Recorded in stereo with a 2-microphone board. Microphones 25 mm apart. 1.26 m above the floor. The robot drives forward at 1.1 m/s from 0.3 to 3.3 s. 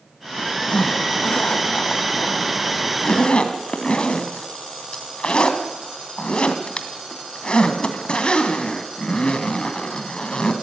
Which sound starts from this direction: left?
A zipper, at 0.7 s.